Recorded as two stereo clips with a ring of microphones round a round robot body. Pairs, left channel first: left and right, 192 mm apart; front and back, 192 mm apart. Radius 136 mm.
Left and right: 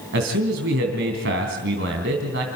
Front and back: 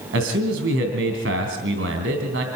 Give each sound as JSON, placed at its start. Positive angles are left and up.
{"t": 0.1, "sound": "a man speaking", "azimuth_deg": -135, "distance_m": 3.0}